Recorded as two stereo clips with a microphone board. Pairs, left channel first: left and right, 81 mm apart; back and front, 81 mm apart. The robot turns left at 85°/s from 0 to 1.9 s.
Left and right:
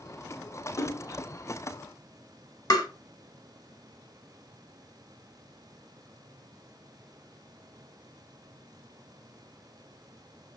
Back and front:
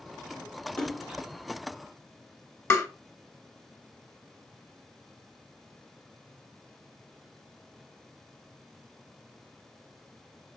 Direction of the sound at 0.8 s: 105° left.